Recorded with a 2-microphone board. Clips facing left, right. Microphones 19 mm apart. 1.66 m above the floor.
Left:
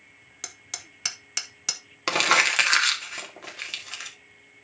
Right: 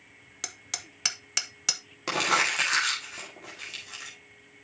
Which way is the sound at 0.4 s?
5° right (ahead or behind).